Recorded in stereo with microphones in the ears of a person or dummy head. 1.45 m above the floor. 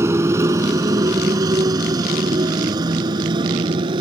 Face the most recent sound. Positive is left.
turn(degrees=-35)  # may be behind; listen again after turning